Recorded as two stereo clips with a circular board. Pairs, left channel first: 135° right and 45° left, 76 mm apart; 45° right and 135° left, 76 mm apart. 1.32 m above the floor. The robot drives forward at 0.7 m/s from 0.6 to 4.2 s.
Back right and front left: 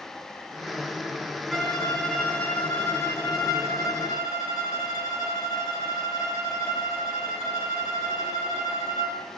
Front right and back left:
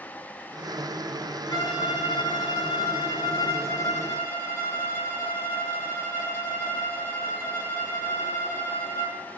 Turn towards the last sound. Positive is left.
turn(degrees=-105)